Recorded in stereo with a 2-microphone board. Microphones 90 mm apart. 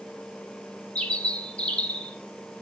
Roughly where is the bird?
Centre.